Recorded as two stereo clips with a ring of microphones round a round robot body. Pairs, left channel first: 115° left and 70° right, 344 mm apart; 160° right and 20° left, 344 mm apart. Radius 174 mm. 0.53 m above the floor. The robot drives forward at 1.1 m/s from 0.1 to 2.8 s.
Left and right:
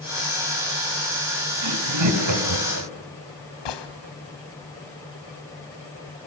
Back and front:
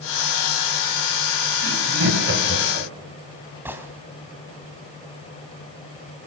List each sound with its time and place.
1.6 s laughter: 30° right, 4.5 m; by 2.9 s 40° right, 3.5 m
3.6 s a gunshot: 105° left, 2.5 m